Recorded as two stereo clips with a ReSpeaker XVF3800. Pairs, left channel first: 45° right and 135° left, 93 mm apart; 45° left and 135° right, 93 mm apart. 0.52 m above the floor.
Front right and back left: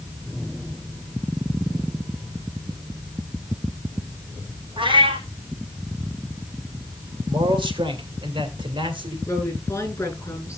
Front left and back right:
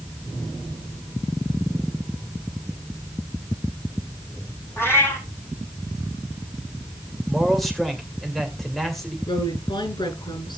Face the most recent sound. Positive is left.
turn(degrees=15)